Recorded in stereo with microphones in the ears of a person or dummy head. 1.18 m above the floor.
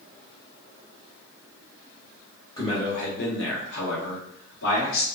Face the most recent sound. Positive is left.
turn(degrees=75)  # may be behind; listen again after turning